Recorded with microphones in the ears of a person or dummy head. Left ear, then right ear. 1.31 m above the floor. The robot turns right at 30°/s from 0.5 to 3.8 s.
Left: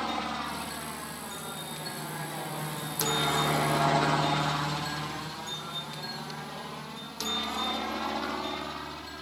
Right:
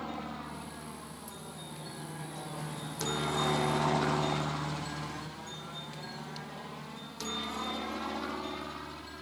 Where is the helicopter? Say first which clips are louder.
Left 8 dB; 60° left (ahead or behind); by 9.2 s 10° left (ahead or behind).